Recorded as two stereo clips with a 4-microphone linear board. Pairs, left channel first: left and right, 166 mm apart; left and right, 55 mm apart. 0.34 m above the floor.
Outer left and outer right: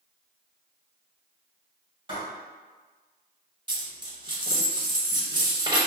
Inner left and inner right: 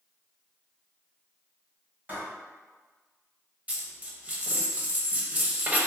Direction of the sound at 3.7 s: 25° right (ahead or behind).